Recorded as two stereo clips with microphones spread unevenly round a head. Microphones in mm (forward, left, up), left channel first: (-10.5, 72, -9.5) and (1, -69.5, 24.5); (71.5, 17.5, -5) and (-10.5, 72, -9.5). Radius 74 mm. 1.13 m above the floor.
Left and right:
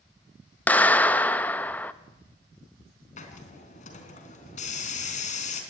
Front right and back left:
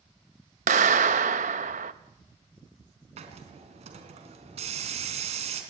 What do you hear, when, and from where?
0.7 s a clap: 175° left, 0.9 m
3.2 s a hiss: 140° left, 3.5 m